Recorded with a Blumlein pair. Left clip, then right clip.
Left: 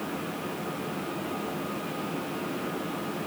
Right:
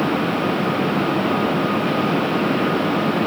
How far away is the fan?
About 0.9 m.